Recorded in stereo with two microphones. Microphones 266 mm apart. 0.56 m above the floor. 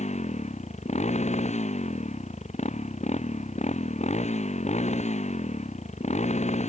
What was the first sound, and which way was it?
A motorcycle, 25° left (ahead or behind).